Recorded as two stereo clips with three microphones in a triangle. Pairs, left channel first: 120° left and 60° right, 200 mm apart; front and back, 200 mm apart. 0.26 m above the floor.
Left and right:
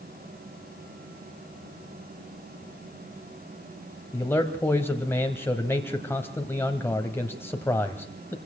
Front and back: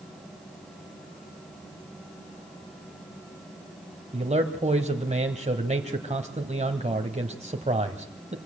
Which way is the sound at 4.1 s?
170° right.